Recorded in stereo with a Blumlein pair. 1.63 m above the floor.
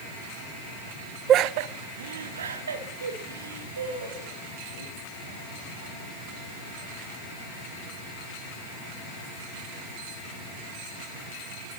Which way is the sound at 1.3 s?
25° right.